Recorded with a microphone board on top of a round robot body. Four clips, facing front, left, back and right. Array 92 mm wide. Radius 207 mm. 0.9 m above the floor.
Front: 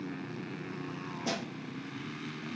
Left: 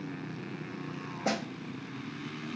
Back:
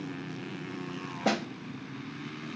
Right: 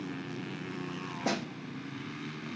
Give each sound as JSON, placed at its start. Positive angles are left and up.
{"t": 1.2, "sound": "a snare drum", "azimuth_deg": 180, "distance_m": 0.9}